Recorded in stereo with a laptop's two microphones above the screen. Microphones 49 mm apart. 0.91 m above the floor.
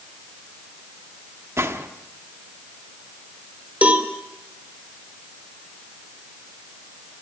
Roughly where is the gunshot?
Right.